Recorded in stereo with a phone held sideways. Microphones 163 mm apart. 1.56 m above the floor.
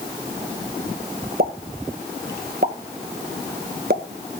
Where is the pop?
70° right (ahead or behind), 1.5 m.